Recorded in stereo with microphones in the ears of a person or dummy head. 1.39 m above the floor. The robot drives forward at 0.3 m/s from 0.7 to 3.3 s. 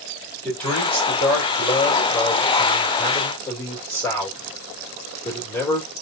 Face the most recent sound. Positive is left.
turn(degrees=10)  # may be behind; listen again after turning